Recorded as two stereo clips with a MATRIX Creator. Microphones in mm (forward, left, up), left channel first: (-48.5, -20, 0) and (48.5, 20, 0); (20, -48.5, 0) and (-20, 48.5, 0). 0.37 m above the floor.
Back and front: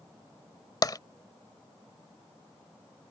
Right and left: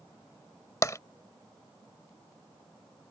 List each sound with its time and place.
0.8 s tapping: 120° right